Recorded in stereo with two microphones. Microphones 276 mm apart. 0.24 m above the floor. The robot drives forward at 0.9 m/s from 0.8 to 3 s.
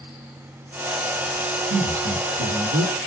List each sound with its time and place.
1.7 s a woman speaking: 65° right (ahead or behind), 5 m; by 3.0 s 55° right (ahead or behind), 5 m